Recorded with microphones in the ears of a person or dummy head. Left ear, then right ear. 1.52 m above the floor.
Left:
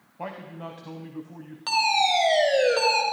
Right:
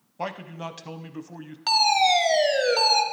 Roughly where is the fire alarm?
Centre.